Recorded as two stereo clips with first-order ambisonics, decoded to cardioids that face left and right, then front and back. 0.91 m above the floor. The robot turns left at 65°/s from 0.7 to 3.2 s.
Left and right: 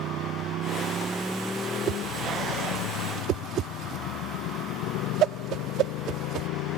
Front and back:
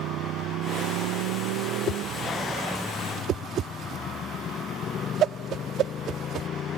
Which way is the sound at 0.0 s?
135° right.